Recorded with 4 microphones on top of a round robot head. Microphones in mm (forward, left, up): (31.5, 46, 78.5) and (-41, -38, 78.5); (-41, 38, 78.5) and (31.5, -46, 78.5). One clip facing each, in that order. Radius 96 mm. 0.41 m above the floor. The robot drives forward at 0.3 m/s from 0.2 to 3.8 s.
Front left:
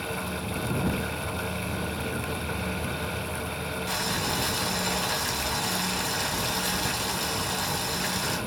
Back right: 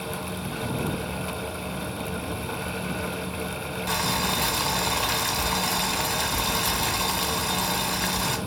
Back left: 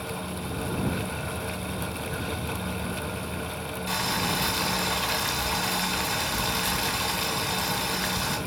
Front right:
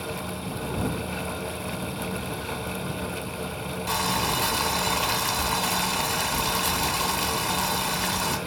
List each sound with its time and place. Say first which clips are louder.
3.9 s boiling: back right 5 dB, front right 3 dB; 95° right, 2 m